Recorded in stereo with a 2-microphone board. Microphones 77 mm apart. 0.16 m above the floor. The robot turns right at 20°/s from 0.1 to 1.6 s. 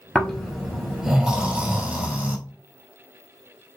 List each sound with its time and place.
0.1 s snoring: 10° left (ahead or behind), 0.9 m; by 2.4 s 15° right (ahead or behind), 0.9 m